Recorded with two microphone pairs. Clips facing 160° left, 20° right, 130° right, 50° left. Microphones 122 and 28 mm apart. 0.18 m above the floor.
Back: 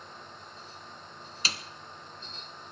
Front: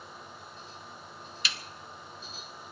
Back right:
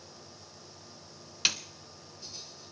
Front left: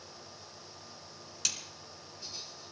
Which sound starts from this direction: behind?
A snare drum, at 1.4 s.